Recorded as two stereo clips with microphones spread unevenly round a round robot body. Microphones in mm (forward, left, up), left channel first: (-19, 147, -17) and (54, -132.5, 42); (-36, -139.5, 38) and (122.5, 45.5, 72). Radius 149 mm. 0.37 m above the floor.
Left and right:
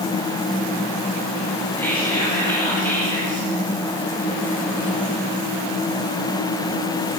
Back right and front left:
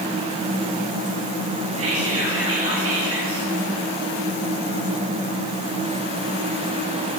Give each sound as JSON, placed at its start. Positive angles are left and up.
{"t": 1.8, "sound": "whispering", "azimuth_deg": 20, "distance_m": 8.0}